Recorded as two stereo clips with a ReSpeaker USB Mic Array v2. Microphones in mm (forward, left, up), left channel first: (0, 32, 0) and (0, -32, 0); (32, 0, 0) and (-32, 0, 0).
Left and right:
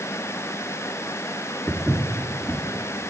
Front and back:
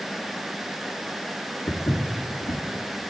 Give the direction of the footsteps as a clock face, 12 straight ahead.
12 o'clock.